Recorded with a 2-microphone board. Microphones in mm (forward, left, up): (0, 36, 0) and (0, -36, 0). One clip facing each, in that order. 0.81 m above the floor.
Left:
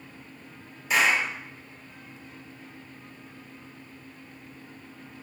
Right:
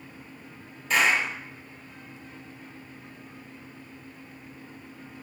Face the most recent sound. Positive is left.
turn(degrees=10)  # may be behind; listen again after turning